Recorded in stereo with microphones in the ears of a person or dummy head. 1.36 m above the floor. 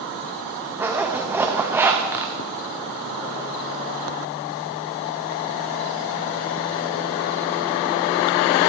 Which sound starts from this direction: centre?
A zipper, at 0.8 s.